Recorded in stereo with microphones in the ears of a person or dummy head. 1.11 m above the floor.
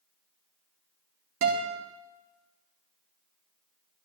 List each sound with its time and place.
1.4 s a guitar: 70° right (ahead or behind), 2.5 m